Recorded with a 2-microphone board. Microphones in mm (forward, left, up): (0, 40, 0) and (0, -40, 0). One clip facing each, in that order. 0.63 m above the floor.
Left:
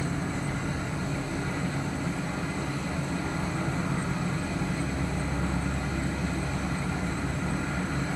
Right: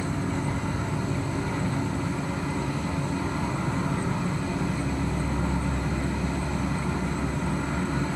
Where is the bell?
I don't hear a bell.